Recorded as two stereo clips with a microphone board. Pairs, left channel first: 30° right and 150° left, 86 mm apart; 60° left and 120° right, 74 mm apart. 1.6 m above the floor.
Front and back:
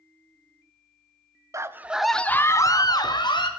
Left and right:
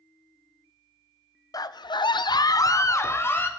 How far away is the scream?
About 0.6 m.